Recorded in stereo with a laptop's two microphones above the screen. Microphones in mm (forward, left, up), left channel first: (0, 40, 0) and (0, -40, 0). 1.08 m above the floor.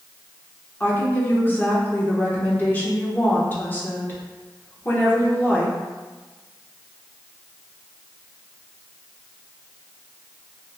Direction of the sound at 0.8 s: 20° left (ahead or behind).